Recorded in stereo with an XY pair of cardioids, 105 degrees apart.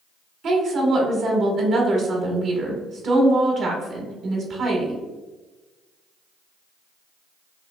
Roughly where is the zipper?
I don't hear a zipper.